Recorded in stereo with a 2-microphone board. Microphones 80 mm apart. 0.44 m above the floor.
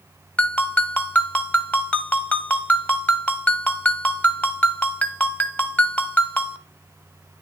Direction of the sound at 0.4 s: 20° left (ahead or behind).